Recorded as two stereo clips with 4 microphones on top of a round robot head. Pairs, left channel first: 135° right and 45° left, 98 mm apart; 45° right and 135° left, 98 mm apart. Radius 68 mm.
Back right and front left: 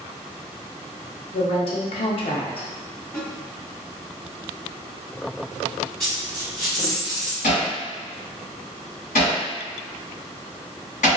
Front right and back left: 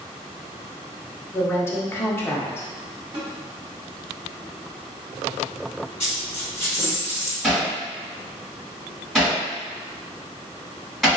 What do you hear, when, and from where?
1.3 s a woman speaking: 110° right, 0.6 m
3.1 s a snare drum: 160° left, 1.1 m
6.0 s a dropped coin: 50° right, 1.8 m
7.4 s hammering: 135° right, 1.3 m